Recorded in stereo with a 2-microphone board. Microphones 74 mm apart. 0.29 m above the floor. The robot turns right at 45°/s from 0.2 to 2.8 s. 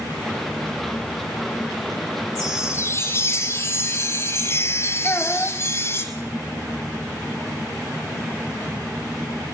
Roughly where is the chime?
Left.